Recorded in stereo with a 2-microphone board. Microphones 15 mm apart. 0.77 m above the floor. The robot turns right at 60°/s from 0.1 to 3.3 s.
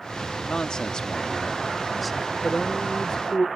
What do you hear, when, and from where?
0.5 s a man speaking: 85° left; by 2.3 s 160° right
2.4 s a man speaking: 90° left; by 3.5 s 145° left